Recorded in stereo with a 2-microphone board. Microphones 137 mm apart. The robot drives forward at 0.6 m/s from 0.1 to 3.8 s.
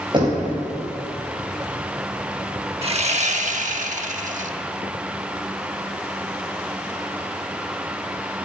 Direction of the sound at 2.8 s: 45° right (ahead or behind).